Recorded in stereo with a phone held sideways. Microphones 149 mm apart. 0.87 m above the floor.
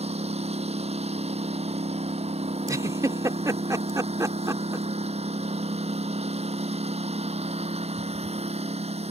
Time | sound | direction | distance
0.0 | a lawn mower | 45° right (ahead or behind) | ?
2.7 | a giggle | 20° right (ahead or behind) | ?